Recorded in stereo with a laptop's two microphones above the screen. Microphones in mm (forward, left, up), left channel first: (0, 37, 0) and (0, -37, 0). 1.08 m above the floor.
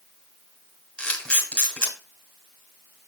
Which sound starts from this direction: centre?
A camera shutter, at 1.0 s.